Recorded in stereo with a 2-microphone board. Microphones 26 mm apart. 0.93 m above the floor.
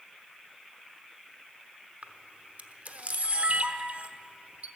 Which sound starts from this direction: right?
A camera shutter, at 2.0 s.